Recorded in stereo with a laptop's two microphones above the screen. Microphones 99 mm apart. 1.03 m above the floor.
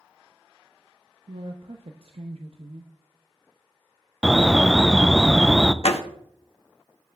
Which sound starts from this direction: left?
A door slam, at 5.8 s.